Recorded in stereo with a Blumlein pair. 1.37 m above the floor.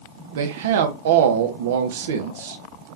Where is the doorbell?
I don't hear a doorbell.